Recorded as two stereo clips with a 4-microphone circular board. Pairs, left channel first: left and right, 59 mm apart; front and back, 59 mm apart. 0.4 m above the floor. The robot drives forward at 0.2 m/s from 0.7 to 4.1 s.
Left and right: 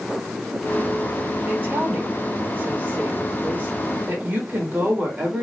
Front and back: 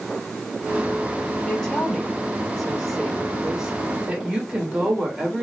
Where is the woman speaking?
65° right, 1.0 m; by 5.4 s 115° right, 1.0 m.